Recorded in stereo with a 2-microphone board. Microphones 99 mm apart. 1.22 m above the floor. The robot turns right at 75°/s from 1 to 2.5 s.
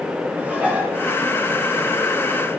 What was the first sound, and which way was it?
Dishes clattering, 15° right (ahead or behind).